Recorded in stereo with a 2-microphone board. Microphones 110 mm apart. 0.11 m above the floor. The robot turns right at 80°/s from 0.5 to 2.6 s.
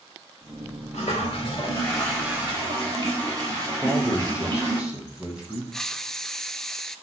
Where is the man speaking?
10° right (ahead or behind), 3.5 m.